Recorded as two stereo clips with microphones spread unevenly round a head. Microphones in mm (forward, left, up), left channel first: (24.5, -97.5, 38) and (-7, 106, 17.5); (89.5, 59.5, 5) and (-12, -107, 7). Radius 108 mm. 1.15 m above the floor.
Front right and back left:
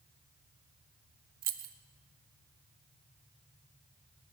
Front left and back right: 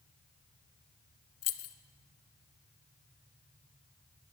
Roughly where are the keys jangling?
Ahead left.